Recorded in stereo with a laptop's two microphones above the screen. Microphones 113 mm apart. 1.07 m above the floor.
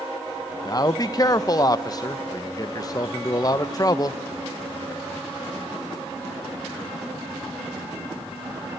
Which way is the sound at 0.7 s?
35° left (ahead or behind).